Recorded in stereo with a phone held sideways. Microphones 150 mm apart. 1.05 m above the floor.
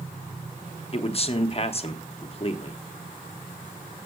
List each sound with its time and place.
0.9 s a man speaking: 40° left (ahead or behind), 0.9 m